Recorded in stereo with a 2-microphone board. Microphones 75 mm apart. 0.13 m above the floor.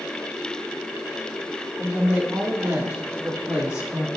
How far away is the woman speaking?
About 5.5 m.